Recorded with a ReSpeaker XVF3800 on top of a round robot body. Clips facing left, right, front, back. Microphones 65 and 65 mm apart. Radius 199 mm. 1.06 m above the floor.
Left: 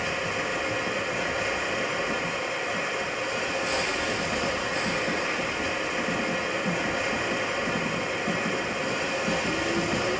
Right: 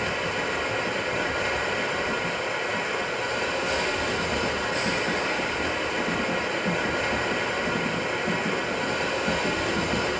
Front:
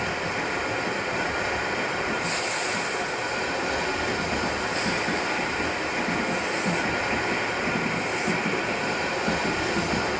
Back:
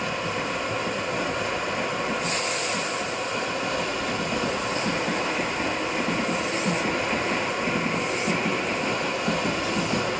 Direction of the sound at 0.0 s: 50° right.